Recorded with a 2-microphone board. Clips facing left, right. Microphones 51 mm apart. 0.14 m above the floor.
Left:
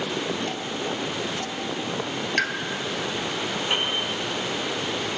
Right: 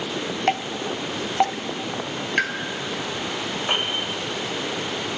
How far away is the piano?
About 5.5 m.